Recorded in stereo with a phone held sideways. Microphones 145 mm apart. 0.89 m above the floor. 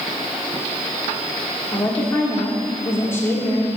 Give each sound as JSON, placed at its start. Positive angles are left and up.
{"t": 1.7, "sound": "a woman speaking", "side_deg": 20, "distance_m": 2.0}